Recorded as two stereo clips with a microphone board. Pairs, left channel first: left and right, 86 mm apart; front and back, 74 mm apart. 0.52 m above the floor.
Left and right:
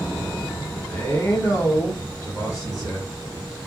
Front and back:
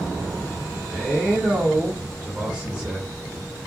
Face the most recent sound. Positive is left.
turn(degrees=115)